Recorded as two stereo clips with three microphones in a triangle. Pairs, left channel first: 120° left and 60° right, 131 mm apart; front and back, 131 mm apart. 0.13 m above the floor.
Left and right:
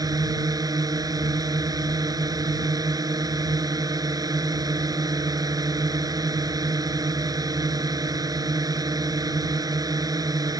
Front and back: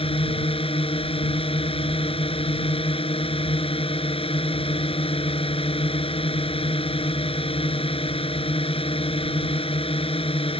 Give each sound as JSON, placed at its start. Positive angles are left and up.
{"t": 0.0, "sound": "a drone", "azimuth_deg": -10}